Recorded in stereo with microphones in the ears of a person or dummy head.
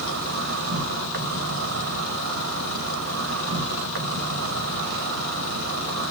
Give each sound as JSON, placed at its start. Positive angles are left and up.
{"t": 0.0, "sound": "an insect", "side_deg": -55, "distance_m": 0.8}